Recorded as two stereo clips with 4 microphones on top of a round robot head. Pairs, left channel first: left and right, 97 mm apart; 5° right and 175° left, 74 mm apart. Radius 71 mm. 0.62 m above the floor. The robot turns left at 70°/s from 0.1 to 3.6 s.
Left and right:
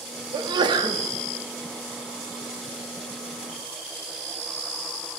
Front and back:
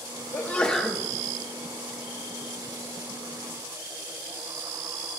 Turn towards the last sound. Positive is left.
turn(degrees=75)